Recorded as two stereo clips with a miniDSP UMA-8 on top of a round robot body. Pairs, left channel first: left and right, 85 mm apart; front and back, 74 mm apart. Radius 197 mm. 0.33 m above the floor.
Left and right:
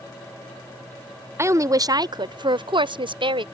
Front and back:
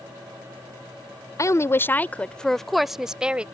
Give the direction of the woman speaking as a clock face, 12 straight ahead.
1 o'clock.